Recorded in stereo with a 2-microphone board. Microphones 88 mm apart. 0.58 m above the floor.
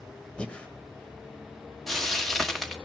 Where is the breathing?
10° left (ahead or behind), 1.6 m.